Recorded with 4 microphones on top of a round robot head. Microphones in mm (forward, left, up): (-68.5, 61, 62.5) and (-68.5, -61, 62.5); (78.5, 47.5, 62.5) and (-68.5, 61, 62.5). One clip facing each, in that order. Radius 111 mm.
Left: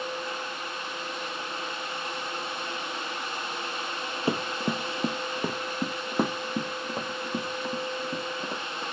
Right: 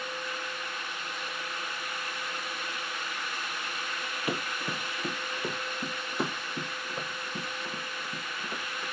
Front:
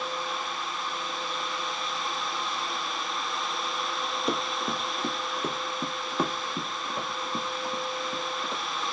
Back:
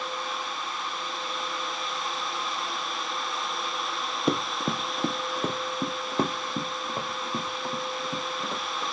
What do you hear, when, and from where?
4.3 s running footsteps: 145° left, 1.2 m; by 8.8 s 120° left, 4 m